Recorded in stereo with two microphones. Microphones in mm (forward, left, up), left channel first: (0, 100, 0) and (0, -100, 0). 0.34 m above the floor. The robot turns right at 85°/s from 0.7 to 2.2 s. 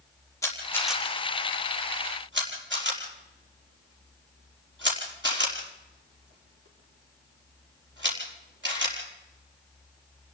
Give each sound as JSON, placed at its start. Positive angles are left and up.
{"t": 0.4, "sound": "a camera shutter", "side_deg": 15, "distance_m": 5.0}